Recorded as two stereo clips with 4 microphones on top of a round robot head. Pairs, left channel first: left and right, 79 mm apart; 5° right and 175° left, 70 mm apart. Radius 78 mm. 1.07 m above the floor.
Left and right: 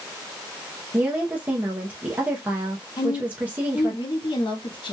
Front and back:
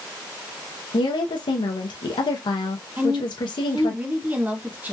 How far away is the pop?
I don't hear a pop.